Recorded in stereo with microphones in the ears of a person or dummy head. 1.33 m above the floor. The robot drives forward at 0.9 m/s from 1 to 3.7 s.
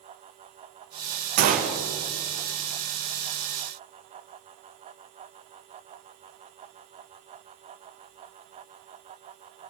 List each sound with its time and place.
1.4 s a gunshot: 50° right (ahead or behind), 0.8 m; by 1.8 s 35° right (ahead or behind), 1.1 m